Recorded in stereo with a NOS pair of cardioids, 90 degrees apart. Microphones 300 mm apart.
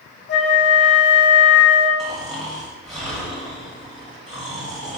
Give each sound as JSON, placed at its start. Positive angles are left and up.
{"t": 0.3, "sound": "a flute", "azimuth_deg": 40, "distance_m": 0.6}
{"t": 2.0, "sound": "snoring", "azimuth_deg": 0, "distance_m": 1.5}